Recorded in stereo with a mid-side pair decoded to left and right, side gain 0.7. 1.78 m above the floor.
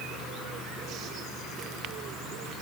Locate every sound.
Only background noise.